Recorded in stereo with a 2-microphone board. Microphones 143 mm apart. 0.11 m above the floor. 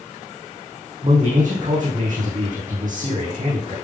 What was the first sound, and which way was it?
A man speaking, 65° right (ahead or behind).